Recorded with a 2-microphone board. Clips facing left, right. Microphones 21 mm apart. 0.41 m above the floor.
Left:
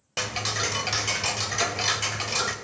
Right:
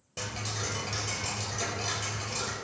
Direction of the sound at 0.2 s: 65° left (ahead or behind).